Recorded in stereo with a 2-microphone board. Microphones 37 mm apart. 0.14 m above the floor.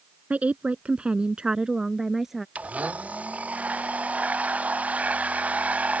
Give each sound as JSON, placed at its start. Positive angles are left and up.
{"t": 0.3, "sound": "a woman speaking", "side_deg": -40}
{"t": 2.5, "sound": "a blender", "side_deg": -40}